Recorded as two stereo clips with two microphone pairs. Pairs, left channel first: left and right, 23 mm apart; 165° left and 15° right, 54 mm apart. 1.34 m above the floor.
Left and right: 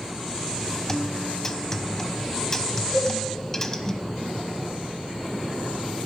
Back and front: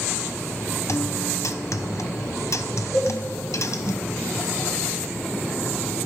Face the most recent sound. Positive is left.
turn(degrees=-105)